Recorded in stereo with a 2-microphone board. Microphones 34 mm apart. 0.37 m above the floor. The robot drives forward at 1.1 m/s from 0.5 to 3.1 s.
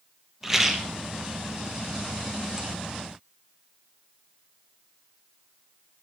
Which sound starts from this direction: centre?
A rattle, at 0.4 s.